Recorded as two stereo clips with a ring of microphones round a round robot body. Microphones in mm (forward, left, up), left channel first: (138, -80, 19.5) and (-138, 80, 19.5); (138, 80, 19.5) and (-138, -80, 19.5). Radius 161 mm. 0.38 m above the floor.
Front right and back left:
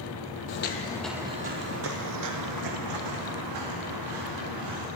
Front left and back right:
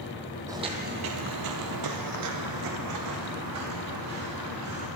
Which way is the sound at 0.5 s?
70° right.